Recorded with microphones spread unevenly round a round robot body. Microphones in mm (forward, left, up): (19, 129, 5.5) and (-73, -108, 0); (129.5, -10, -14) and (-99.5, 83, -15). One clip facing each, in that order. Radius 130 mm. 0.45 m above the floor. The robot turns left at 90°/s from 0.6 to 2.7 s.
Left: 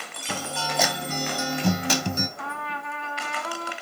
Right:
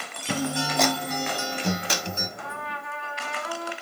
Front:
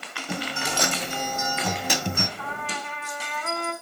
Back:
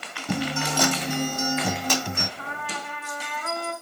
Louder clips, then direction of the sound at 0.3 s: Right 6 dB, back 5 dB; 175° left.